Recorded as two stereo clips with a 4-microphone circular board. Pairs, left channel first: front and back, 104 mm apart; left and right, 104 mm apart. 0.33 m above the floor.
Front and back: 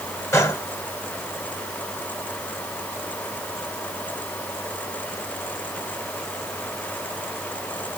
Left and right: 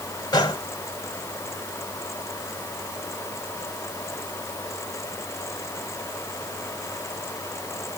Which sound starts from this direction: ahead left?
A gunshot, at 0.3 s.